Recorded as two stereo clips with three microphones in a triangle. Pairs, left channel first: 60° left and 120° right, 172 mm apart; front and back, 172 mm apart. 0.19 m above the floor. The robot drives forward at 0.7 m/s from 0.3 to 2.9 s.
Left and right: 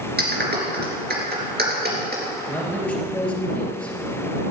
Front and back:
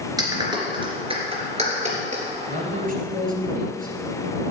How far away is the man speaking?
About 2.5 m.